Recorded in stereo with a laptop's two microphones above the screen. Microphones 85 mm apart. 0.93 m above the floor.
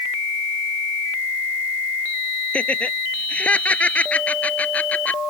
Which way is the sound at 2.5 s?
15° left (ahead or behind).